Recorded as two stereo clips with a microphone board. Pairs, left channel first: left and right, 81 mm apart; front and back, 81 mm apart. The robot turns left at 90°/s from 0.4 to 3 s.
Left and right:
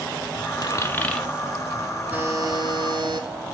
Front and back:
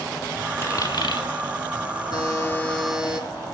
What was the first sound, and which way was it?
A dropped coin, 55° left.